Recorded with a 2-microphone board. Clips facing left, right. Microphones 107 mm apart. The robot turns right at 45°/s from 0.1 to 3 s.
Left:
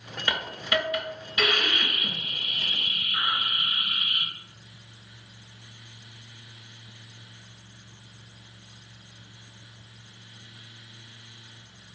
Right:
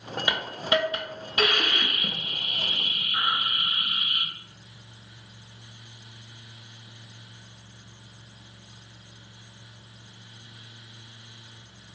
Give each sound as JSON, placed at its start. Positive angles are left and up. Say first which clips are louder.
{"t": 0.3, "sound": "a hiss", "louder": "right 2 dB", "azimuth_deg": -160, "distance_m": 0.6}